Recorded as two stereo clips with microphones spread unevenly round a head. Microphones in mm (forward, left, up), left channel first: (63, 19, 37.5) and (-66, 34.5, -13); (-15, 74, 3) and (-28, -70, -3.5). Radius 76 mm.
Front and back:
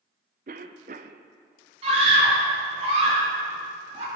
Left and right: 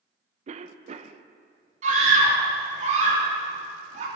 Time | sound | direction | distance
0.5 | a cough | 140° right | 0.6 m
1.8 | a scream | 135° right | 3 m